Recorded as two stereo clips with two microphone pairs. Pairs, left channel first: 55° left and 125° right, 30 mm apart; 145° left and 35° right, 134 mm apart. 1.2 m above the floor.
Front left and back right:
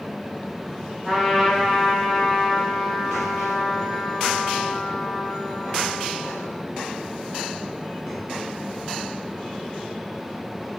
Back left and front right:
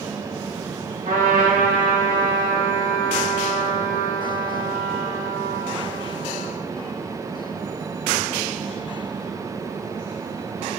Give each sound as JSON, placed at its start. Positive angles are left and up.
{"t": 1.1, "sound": "a trumpet", "azimuth_deg": -40, "distance_m": 1.2}